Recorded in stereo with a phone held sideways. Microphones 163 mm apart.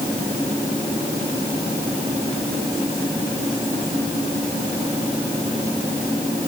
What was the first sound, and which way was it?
Only background noise.